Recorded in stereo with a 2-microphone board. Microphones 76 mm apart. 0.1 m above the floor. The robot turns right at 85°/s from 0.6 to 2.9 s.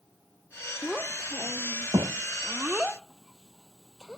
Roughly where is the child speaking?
Centre.